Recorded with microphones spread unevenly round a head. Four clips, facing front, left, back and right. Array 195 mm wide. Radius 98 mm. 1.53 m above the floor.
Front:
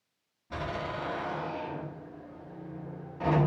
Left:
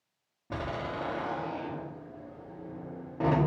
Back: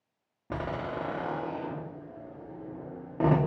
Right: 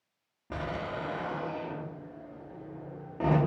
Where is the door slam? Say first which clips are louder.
Even, back 1 dB; straight behind, 2.0 m.